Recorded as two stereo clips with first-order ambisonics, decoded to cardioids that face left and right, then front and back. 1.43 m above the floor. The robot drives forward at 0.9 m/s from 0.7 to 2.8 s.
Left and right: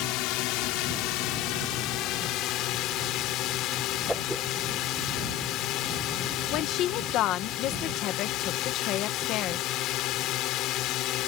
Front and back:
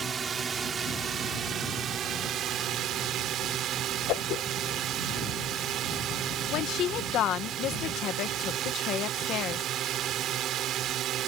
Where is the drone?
115° left; by 11.3 s 130° left.